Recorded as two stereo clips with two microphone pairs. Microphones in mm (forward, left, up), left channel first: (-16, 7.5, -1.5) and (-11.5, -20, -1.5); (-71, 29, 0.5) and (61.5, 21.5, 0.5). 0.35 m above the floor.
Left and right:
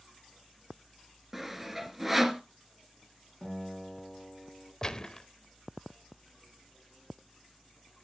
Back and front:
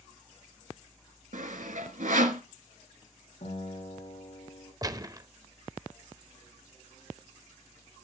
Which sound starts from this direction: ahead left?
A gunshot, at 4.8 s.